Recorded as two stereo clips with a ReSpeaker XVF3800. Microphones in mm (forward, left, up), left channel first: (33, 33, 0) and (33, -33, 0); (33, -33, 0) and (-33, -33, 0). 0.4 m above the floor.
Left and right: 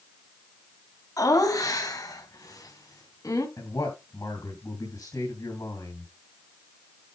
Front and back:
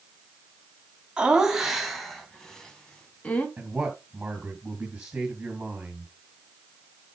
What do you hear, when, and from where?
1.2 s laughter: 105° left, 2.5 m; by 3.5 s 70° left, 3 m
3.6 s a man speaking: 115° left, 3.5 m